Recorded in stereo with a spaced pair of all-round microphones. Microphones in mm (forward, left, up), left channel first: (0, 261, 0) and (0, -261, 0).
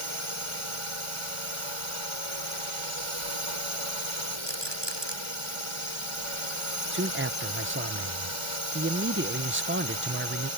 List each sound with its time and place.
0.0 s a drone: 70° right (ahead or behind)
4.5 s a rattle: 50° right (ahead or behind)
6.9 s a man speaking: 25° right (ahead or behind)